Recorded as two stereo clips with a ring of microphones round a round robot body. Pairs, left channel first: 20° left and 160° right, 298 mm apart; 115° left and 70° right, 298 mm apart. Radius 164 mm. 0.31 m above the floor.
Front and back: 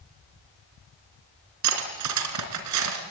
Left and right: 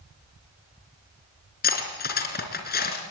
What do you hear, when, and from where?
1.6 s cutlery clinking: 170° left, 3.5 m